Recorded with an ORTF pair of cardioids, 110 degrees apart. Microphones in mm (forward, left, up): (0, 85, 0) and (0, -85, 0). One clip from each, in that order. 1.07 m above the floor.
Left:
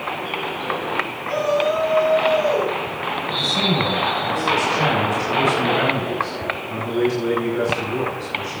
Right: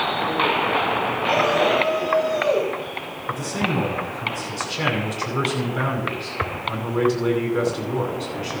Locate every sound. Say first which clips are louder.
1.2 s a shout: right 1 dB; 50° right, 9.5 m
3.3 s a man speaking: left 4 dB; 50° right, 10 m